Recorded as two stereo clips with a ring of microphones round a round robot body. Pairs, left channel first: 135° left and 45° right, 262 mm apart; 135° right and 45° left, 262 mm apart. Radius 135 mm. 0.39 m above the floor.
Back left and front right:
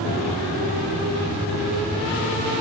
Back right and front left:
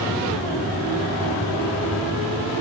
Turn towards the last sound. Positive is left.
No sound to turn to.